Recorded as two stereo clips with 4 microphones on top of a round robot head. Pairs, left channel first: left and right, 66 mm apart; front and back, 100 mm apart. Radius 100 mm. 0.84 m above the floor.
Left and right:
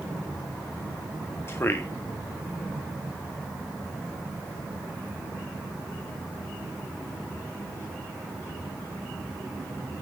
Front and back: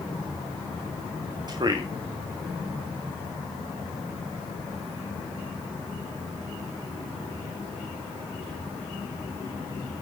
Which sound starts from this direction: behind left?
A man speaking, at 1.5 s.